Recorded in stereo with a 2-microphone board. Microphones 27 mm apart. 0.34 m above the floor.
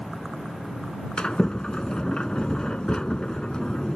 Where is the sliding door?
30° left (ahead or behind).